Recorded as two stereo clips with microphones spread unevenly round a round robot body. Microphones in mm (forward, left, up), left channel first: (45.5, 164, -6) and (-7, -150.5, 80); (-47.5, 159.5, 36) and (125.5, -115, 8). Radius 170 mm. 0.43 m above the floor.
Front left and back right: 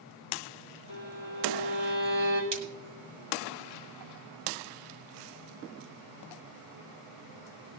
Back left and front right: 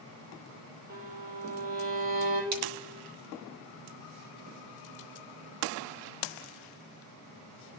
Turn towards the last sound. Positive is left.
turn(degrees=-45)